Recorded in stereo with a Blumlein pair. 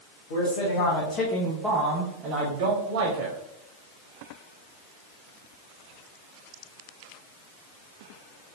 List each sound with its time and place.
0.3 s a man speaking: 60° left, 1.5 m; by 3.4 s 55° right, 1.9 m